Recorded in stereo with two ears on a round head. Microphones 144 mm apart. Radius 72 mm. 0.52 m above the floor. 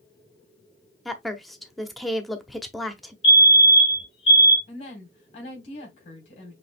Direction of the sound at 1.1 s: Centre (ahead or behind).